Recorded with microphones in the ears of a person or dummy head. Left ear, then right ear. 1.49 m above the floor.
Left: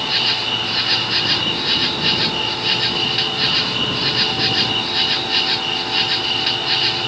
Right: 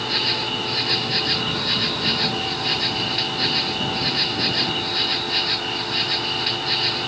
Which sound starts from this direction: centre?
An insect, at 0.0 s.